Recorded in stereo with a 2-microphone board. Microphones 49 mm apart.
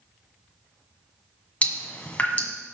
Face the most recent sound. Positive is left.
turn(degrees=25)  # may be behind; listen again after turning